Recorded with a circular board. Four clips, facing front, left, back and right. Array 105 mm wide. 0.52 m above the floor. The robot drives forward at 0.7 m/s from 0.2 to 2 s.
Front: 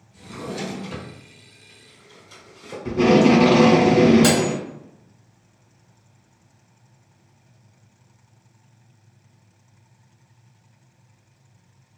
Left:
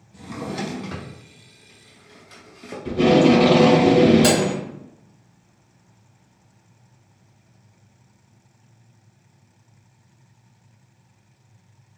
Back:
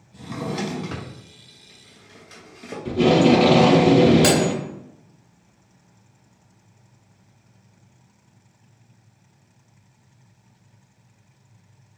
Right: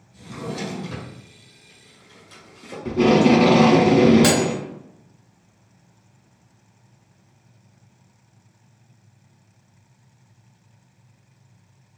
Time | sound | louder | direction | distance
0.1 | a drawer | left 1 dB, back 3 dB | 145° left | 0.7 m
2.9 | tape being pulled | even, front 1 dB | 45° right | 1.0 m
4.2 | cutlery clinking | even, even | 130° right | 1.1 m